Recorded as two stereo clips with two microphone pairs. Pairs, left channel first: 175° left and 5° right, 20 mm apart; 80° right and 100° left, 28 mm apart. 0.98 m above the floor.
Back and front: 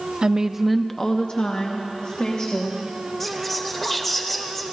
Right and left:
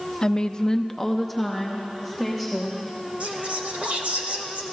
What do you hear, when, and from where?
0.2 s a woman speaking: 30° right, 0.6 m; by 2.8 s 175° right, 2.0 m
3.2 s whispering: 110° left, 1.6 m